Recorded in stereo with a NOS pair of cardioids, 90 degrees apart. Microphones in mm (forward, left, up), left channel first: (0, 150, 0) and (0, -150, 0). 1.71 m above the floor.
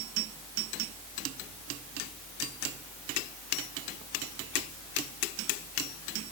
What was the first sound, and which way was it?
Only background noise.